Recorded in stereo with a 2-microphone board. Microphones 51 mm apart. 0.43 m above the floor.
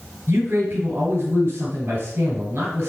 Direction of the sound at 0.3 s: 50° right (ahead or behind).